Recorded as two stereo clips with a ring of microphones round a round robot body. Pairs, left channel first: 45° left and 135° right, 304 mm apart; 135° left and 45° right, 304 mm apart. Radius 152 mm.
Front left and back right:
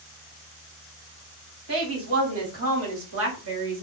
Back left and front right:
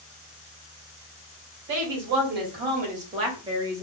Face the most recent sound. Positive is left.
turn(degrees=-125)